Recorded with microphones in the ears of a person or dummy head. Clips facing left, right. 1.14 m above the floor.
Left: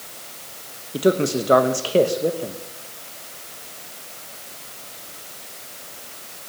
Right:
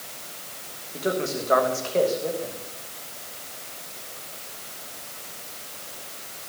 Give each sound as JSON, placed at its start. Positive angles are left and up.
{"t": 0.9, "sound": "a man speaking", "side_deg": 45, "distance_m": 1.2}